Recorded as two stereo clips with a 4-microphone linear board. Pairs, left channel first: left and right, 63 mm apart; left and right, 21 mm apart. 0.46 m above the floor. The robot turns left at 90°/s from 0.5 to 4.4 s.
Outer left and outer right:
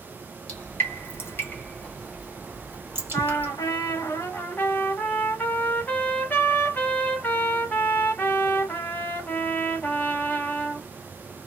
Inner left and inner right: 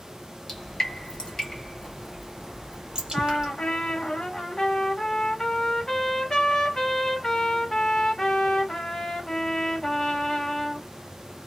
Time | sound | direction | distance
0.5 | dripping | 15° left (ahead or behind) | 1.4 m
3.1 | a trumpet | 140° left | 1.0 m